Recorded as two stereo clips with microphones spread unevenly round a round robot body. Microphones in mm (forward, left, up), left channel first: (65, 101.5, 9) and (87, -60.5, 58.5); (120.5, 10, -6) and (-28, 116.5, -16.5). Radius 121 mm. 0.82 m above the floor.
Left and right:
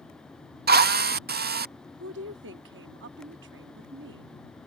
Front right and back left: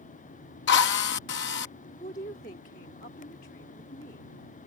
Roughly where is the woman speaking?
Right.